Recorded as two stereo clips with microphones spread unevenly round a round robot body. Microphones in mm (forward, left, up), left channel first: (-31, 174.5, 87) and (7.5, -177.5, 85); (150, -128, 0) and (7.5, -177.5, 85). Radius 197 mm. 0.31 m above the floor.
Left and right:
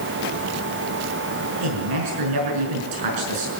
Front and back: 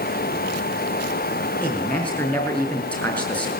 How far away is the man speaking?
About 5.5 m.